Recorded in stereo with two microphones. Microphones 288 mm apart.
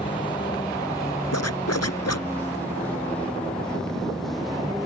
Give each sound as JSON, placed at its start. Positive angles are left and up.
{"t": 0.0, "sound": "a vehicle", "side_deg": 15}
{"t": 1.3, "sound": "a zipper", "side_deg": 55}